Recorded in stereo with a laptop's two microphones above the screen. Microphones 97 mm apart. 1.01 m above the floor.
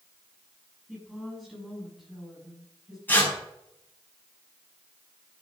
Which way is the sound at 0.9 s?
5° right (ahead or behind).